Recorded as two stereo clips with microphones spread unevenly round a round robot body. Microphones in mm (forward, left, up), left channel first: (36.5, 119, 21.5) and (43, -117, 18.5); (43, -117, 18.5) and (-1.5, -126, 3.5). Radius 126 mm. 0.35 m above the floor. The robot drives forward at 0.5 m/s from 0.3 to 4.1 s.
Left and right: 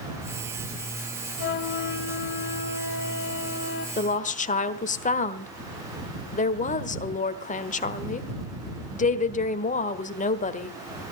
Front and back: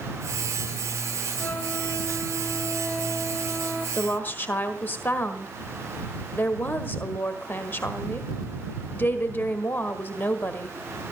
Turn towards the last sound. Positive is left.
turn(degrees=60)